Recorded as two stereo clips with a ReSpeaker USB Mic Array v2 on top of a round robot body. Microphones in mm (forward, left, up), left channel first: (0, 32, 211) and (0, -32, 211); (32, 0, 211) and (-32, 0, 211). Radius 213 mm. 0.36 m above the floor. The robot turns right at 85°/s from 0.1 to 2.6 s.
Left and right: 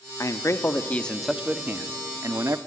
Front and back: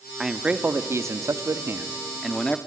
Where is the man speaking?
90° left, 1.1 m; by 2.6 s 65° right, 1.1 m.